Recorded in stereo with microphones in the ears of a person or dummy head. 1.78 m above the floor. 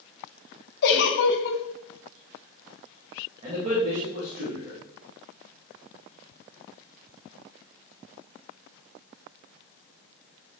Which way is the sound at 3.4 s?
40° right (ahead or behind).